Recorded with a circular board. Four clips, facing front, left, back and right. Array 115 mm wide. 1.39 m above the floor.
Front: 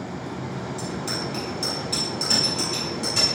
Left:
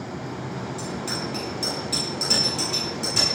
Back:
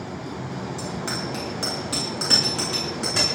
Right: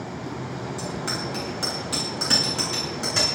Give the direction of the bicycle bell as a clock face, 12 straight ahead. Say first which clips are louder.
Right 1 dB, even; 4 o'clock.